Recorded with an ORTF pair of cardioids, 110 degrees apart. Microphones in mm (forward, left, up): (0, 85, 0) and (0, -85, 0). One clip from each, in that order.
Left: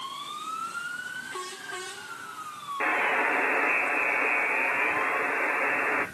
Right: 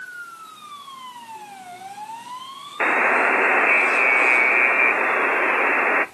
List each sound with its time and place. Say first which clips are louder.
2.8 s a buzzer: right 7 dB; 45° right, 0.7 m